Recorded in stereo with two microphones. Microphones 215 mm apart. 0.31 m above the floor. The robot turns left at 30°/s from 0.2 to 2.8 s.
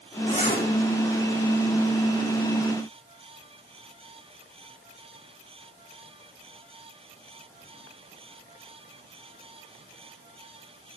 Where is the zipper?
25° left (ahead or behind), 4 m; by 0.7 s 35° left (ahead or behind), 4 m.